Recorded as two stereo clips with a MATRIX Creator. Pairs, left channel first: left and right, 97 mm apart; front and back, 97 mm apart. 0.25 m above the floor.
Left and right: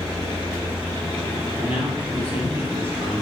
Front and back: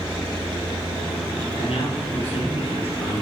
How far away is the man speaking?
About 7 m.